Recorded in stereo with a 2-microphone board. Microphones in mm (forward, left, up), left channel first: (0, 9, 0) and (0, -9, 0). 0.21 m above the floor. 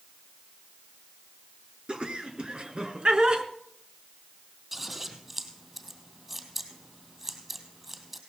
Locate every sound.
1.9 s laughter: 65° right (ahead or behind), 2.5 m; by 3.4 s 60° right (ahead or behind), 2 m
4.7 s scissors: 10° right (ahead or behind), 3 m